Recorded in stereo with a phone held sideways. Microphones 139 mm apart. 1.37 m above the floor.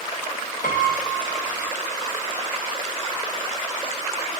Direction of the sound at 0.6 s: 80° left.